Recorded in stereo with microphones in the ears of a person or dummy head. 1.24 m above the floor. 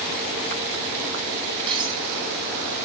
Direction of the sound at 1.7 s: 25° right (ahead or behind).